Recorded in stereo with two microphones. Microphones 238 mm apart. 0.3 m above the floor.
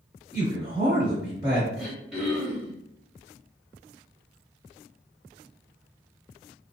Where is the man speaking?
15° right (ahead or behind), 1.2 m.